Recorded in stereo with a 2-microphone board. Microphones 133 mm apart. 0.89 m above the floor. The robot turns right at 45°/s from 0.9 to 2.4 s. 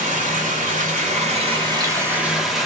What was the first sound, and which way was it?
Running water, 70° right.